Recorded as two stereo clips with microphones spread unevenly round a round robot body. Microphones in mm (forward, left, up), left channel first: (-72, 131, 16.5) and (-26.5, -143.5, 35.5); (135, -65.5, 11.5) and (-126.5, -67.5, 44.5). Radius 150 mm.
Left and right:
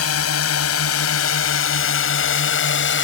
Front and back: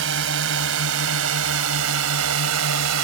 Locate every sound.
0.0 s a drone: 130° left; by 3.0 s 145° left